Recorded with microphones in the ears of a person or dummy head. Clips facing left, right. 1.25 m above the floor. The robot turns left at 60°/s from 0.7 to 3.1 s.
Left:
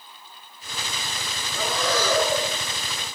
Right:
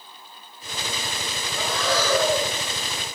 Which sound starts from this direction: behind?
Breathing, at 1.5 s.